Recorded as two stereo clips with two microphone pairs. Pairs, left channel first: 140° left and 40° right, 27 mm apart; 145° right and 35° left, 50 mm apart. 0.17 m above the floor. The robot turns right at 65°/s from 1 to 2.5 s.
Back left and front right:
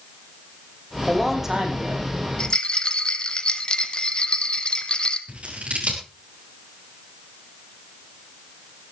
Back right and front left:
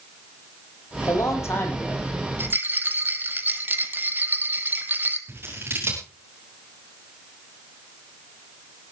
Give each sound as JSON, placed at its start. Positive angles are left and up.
{"t": 1.1, "sound": "a man speaking", "azimuth_deg": -145, "distance_m": 7.0}
{"t": 2.4, "sound": "a rattle", "azimuth_deg": 75, "distance_m": 1.4}
{"t": 5.3, "sound": "scissors", "azimuth_deg": -5, "distance_m": 7.5}